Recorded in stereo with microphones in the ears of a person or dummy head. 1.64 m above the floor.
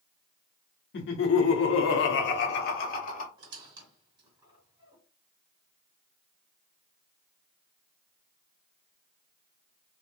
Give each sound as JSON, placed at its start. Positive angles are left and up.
{"t": 0.9, "sound": "laughter", "side_deg": 65, "distance_m": 1.0}
{"t": 3.4, "sound": "a squeak", "side_deg": -30, "distance_m": 2.5}